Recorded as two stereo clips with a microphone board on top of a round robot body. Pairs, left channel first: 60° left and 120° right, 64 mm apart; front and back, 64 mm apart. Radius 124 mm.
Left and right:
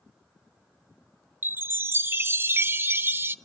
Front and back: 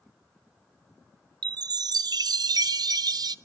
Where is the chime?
175° right, 0.6 m.